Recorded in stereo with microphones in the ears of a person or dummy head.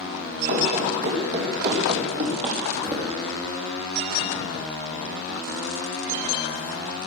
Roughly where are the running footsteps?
Right.